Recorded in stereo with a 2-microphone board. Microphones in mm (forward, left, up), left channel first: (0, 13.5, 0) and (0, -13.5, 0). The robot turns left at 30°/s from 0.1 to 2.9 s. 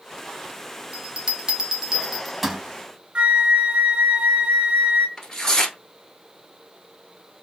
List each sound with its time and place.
0.9 s a bell: 45° right (ahead or behind), 0.6 m; by 2.6 s 5° right (ahead or behind), 0.6 m
3.1 s a flute: 40° right (ahead or behind), 0.7 m
5.2 s tearing paper: 15° left (ahead or behind), 1.1 m